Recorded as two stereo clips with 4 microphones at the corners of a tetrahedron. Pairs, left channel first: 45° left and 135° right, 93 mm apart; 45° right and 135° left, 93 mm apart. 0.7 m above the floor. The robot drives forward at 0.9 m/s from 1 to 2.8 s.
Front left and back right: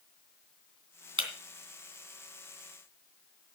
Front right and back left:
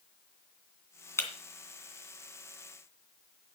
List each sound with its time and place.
1.2 s breaking glass: 105° right, 2.5 m; by 1.3 s 110° right, 2.5 m